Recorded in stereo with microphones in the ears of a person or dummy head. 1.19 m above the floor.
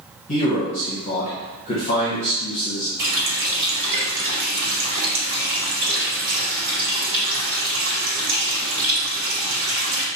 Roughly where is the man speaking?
Left.